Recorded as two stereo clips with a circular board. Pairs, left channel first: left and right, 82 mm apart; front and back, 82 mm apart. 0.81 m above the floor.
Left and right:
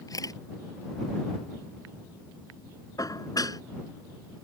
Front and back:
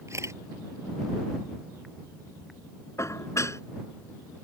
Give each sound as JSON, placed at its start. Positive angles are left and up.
{"t": 0.1, "sound": "a camera shutter", "azimuth_deg": 130}
{"t": 3.0, "sound": "dishes clattering", "azimuth_deg": 50}